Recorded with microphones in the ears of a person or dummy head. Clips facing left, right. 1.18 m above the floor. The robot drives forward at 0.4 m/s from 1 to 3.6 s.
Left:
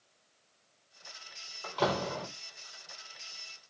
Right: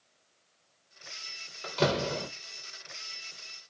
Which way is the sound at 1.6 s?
25° right (ahead or behind).